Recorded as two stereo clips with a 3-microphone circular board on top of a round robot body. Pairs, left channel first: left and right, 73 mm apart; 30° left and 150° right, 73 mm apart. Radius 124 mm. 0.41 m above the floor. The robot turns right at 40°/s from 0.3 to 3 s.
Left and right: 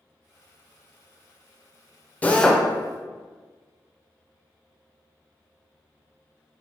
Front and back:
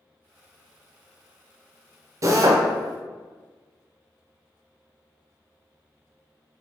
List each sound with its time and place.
2.2 s a drill: 160° left, 0.6 m; by 2.6 s straight behind, 0.6 m